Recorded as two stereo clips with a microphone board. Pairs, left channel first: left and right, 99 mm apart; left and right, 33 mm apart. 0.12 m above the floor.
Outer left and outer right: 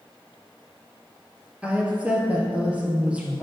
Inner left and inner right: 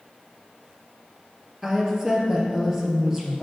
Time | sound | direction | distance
1.6 | a woman speaking | 15° right (ahead or behind) | 2.0 m